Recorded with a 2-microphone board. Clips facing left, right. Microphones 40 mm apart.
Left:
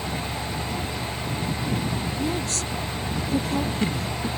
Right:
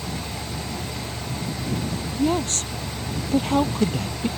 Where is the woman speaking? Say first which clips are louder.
Right 4 dB; 50° right (ahead or behind).